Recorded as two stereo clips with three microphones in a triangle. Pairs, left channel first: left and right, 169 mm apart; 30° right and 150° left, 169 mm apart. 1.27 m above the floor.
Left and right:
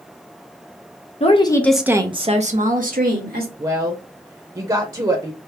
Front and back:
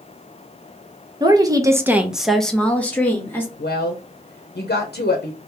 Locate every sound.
1.2 s a woman speaking: 100° left, 0.6 m; by 3.5 s 110° right, 1.5 m
3.6 s a woman speaking: 25° right, 0.6 m